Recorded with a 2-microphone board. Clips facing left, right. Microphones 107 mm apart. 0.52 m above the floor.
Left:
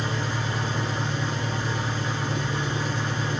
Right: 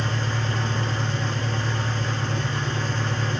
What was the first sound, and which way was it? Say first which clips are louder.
An engine running: right 1 dB; 10° left (ahead or behind).